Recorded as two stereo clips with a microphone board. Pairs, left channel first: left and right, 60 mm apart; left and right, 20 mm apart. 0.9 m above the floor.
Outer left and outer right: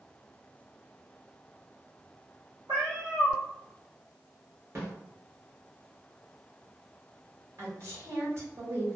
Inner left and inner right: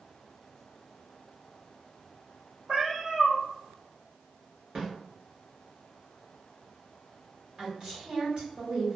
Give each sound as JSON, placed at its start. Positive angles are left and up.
{"t": 2.7, "sound": "a cat meowing", "side_deg": -85, "distance_m": 1.1}
{"t": 4.8, "sound": "a snare drum", "side_deg": -55, "distance_m": 1.7}
{"t": 7.6, "sound": "a woman speaking", "side_deg": -50, "distance_m": 1.4}